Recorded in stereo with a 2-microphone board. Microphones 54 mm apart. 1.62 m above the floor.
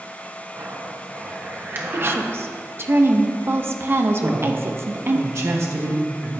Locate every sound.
0.6 s a zipper: 40° right (ahead or behind), 1.2 m
1.9 s a woman speaking: 45° right (ahead or behind), 0.8 m
4.2 s a man speaking: 60° right (ahead or behind), 1.7 m